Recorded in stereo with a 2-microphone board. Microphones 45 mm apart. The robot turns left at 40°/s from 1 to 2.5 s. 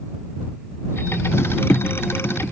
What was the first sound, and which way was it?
Only background noise.